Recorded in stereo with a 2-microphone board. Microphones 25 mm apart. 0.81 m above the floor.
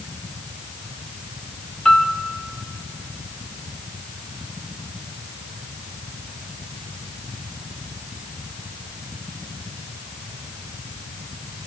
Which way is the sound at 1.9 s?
35° left (ahead or behind).